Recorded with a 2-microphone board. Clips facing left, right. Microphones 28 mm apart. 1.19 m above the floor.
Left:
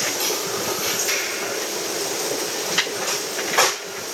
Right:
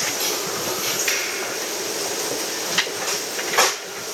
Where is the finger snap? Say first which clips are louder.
Right 2 dB; 45° right (ahead or behind), 0.9 m.